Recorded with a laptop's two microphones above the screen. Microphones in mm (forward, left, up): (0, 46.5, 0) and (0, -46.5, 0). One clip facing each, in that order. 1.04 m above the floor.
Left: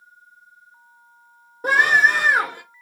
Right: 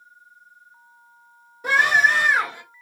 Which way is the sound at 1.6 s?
40° left (ahead or behind).